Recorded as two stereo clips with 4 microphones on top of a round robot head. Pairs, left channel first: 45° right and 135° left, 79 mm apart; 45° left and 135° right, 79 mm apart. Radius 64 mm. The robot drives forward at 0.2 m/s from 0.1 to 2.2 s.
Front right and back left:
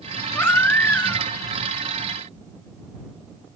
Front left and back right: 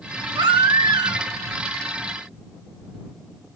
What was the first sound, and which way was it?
A baby crying, 110° right.